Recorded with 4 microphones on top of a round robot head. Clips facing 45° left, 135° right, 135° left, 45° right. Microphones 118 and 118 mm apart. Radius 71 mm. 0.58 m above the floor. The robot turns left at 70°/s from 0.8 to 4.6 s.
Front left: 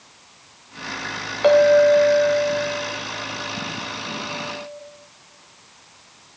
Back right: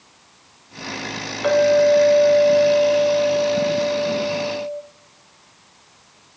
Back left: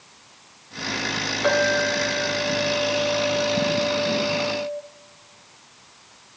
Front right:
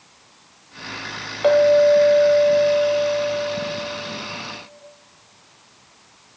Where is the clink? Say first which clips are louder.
Front left 2 dB, front right 9 dB; 5° right, 2 m; by 4.8 s 135° left, 2 m.